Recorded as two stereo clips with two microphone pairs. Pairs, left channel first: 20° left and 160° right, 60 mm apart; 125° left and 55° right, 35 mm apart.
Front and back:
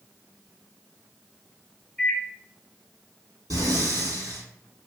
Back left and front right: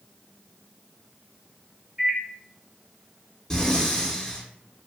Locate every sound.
2.0 s a microwave: 30° right, 0.8 m
3.5 s breathing: 155° right, 1.5 m